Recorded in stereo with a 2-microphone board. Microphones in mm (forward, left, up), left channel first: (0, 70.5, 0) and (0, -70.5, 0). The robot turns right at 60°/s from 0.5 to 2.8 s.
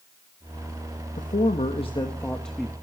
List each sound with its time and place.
1.2 s a man speaking: 95° left, 1.4 m; by 2.7 s 170° right, 1.4 m